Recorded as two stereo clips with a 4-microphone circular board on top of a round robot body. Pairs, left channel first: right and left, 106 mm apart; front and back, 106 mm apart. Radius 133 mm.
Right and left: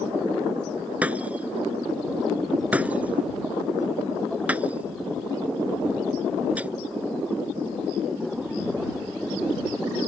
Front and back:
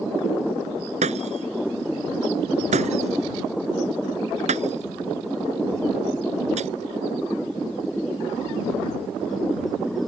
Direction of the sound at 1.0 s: 165° left.